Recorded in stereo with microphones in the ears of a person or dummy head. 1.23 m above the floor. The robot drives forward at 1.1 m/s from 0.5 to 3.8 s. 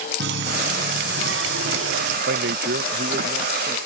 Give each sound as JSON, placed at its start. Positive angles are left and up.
{"t": 0.2, "sound": "a running tap", "side_deg": -70}
{"t": 2.3, "sound": "a man speaking", "side_deg": -70}